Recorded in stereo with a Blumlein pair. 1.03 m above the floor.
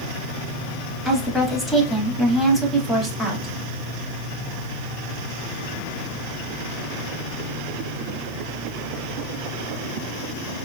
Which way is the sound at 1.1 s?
5° left.